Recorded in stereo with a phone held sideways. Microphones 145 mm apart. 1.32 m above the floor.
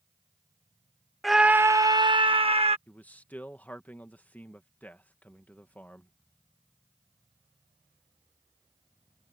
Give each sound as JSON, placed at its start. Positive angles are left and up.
{"t": 1.2, "sound": "a scream", "side_deg": 0}
{"t": 2.9, "sound": "a man speaking", "side_deg": 10}